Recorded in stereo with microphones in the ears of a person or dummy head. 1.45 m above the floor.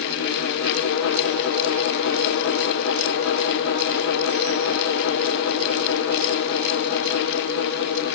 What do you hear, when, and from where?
Only background noise.